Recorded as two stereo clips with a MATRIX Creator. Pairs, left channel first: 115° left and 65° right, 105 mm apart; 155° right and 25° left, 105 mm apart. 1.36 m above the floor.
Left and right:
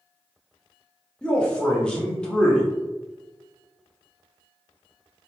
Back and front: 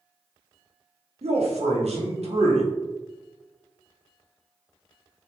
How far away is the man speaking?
About 0.8 m.